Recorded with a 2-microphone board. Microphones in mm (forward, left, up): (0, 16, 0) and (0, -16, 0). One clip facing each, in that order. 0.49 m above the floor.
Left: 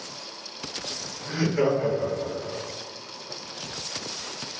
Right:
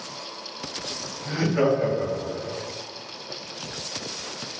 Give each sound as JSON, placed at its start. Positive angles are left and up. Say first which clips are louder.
{"t": 1.2, "sound": "laughter", "louder": "right 2 dB", "side_deg": -50, "distance_m": 1.5}